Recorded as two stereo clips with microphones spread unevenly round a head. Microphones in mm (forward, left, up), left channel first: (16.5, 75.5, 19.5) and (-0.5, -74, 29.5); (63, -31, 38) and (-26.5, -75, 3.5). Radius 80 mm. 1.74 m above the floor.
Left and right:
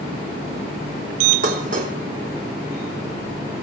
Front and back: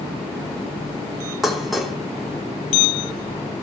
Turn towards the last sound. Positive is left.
turn(degrees=-60)